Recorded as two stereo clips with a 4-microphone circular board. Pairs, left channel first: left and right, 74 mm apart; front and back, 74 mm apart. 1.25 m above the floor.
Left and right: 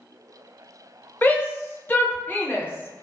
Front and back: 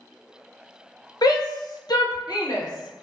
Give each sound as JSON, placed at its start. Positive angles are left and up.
{"t": 1.2, "sound": "a shout", "azimuth_deg": 25, "distance_m": 0.7}